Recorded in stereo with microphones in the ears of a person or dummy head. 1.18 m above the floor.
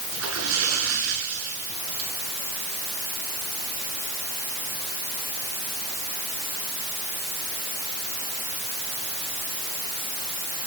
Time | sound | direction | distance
0.1 | a splash | 80° right | 8.5 m